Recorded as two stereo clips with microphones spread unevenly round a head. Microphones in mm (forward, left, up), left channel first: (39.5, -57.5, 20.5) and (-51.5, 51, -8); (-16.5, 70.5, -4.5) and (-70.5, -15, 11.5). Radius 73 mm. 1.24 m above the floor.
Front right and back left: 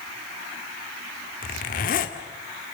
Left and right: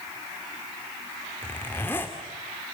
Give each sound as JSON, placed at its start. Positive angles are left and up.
{"t": 1.4, "sound": "a zipper", "azimuth_deg": -20, "distance_m": 1.9}